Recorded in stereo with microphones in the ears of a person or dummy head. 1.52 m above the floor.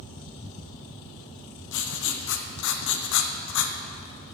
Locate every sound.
1.7 s writing: 65° left (ahead or behind), 0.7 m